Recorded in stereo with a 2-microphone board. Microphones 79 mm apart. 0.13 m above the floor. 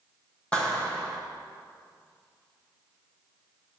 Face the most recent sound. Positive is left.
turn(degrees=15)  # may be behind; listen again after turning